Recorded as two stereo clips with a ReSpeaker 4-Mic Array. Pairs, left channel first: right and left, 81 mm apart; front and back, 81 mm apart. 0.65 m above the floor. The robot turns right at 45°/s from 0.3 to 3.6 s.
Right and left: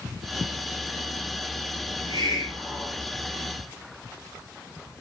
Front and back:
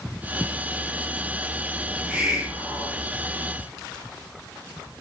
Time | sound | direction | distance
1.9 | a hiss | 85° left | 3 m